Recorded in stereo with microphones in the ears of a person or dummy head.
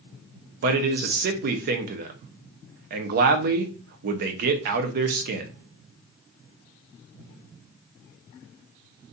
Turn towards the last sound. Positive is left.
turn(degrees=-50)  # may be behind; listen again after turning